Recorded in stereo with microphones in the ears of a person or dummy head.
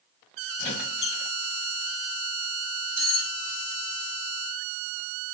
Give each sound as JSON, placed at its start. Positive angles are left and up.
{"t": 0.6, "sound": "a squeak", "side_deg": 60, "distance_m": 1.4}
{"t": 3.0, "sound": "cutlery clinking", "side_deg": -30, "distance_m": 1.1}